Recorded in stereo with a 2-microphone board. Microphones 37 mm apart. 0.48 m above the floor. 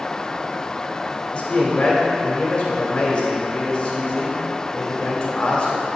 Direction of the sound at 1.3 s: 25° left (ahead or behind).